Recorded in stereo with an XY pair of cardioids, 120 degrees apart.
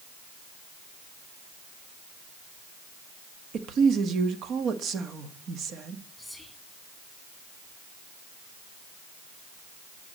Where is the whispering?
Straight ahead, 3 m.